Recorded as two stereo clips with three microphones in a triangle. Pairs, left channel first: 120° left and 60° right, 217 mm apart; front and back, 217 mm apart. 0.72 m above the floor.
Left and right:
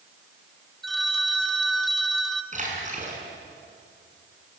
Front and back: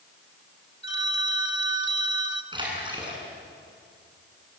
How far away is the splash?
About 6.5 m.